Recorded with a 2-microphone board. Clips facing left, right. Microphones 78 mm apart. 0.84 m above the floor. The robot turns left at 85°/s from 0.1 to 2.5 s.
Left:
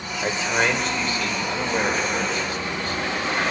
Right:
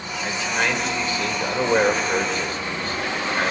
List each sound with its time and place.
0.2 s a man speaking: 50° left, 2.5 m; by 3.5 s 145° right, 2.5 m